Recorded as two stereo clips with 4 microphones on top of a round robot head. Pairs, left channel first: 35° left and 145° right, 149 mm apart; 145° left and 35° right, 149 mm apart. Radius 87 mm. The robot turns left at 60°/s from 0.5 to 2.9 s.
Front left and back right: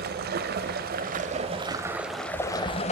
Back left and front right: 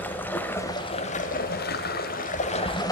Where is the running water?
135° right, 1.1 m; by 2.9 s 80° left, 1.1 m.